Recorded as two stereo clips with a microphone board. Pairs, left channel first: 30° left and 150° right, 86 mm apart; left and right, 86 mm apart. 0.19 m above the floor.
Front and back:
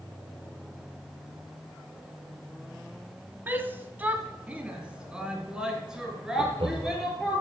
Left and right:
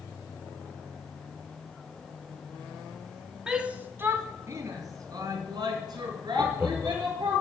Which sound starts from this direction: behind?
A shout, at 3.5 s.